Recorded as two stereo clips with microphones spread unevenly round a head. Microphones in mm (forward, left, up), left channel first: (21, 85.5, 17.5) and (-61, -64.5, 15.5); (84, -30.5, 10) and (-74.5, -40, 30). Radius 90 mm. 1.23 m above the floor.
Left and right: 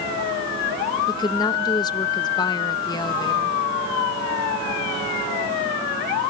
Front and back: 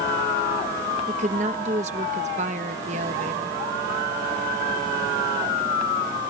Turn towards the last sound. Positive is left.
turn(degrees=130)